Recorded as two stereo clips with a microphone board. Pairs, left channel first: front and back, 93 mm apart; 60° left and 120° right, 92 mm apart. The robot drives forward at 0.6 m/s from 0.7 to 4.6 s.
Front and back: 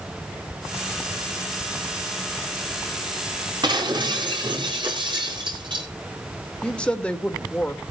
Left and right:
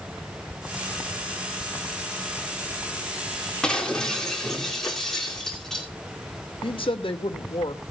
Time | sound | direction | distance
3.6 | breaking glass | 140° left | 4 m
6.6 | a woman speaking | 80° left | 2 m